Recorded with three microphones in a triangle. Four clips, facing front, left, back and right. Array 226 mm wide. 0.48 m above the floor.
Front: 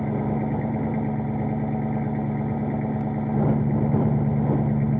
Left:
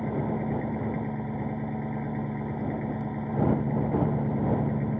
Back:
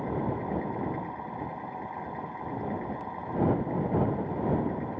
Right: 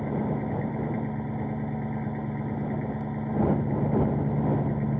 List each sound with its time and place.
0.0 s an engine running: straight ahead